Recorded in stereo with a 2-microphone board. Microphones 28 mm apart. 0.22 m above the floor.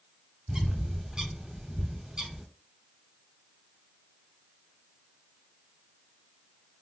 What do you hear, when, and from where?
0.5 s a bird: 25° right (ahead or behind), 1.0 m